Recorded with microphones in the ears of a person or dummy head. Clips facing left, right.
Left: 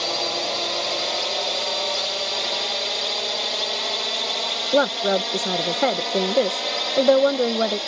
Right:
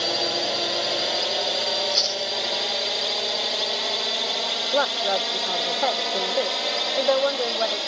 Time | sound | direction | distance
0.0 | a drone | 10° right (ahead or behind) | ?
1.8 | chewing | 30° right (ahead or behind) | ?
4.7 | a woman speaking | 40° left (ahead or behind) | ?